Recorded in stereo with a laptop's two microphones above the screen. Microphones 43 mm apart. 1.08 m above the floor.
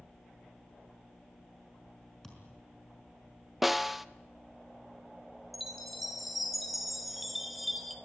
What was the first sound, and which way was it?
A thud, 10° left (ahead or behind).